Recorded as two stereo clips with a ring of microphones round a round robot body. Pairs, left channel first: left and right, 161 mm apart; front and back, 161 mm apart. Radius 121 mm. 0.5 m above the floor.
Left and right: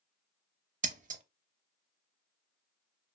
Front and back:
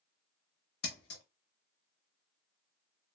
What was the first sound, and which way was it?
Scissors, 50° right.